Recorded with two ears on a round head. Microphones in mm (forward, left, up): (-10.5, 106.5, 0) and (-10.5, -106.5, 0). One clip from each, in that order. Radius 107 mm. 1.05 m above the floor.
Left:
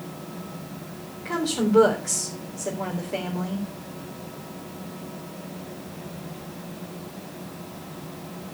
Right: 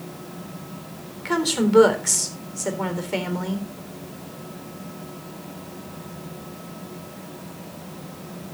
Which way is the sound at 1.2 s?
80° right.